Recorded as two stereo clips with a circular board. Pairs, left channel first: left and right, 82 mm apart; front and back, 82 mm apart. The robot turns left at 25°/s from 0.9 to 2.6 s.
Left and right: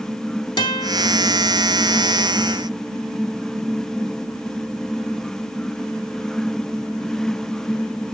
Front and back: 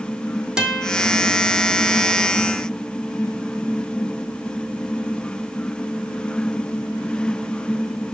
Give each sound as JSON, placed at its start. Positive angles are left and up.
{"t": 0.6, "sound": "a guitar", "azimuth_deg": 100, "distance_m": 1.7}